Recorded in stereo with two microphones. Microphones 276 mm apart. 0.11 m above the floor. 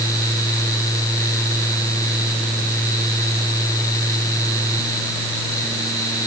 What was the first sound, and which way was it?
Only background noise.